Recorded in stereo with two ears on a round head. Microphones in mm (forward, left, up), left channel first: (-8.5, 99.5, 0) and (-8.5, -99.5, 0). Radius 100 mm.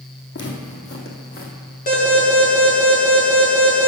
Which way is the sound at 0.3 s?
50° left (ahead or behind).